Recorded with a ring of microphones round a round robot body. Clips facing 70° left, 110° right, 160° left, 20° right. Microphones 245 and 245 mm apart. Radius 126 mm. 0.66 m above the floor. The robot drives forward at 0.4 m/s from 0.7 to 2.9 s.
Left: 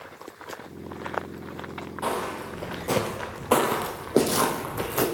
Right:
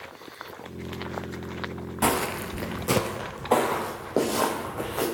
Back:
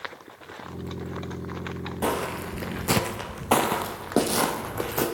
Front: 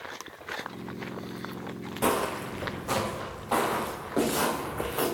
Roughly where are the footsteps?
Right.